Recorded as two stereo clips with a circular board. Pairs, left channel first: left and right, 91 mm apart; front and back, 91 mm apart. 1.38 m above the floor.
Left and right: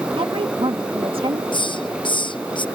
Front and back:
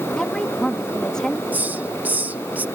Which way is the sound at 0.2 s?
80° right.